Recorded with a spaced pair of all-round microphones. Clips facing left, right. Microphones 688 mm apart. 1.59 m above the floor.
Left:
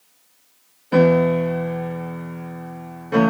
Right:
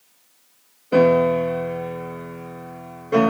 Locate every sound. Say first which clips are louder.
0.9 s a piano: even; 25° left (ahead or behind), 1.1 m